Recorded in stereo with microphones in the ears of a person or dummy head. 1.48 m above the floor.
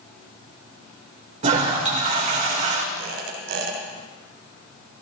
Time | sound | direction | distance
1.4 | a toilet flushing | 45° right (ahead or behind) | 2.5 m
2.9 | a squeak | 65° right (ahead or behind) | 2.5 m